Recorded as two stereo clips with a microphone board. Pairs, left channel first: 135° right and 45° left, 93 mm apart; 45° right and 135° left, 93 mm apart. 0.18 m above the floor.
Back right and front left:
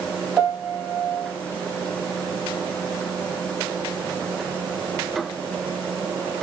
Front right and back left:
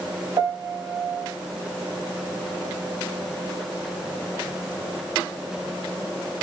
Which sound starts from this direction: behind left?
A piano, at 0.4 s.